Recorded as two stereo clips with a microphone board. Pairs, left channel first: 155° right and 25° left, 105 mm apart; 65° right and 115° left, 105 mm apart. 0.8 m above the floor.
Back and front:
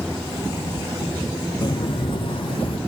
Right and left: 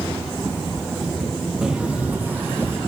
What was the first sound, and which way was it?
Footsteps, 165° right.